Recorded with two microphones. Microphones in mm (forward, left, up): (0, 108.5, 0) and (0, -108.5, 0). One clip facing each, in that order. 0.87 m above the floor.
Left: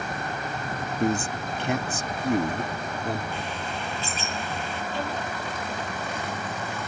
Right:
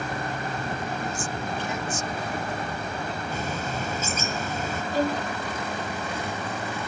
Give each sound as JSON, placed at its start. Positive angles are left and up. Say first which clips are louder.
{"t": 1.0, "sound": "a man speaking", "louder": "left 5 dB", "side_deg": 60}
{"t": 3.3, "sound": "a bird", "louder": "right 3 dB", "side_deg": -45}
{"t": 4.9, "sound": "a violin", "louder": "right 8 dB", "side_deg": -40}